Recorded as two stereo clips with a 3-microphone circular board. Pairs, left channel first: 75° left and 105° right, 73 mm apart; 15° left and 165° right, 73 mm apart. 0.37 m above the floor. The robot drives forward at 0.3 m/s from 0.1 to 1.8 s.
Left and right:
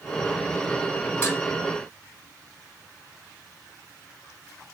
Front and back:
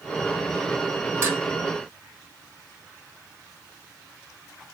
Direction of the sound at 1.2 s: 135° left.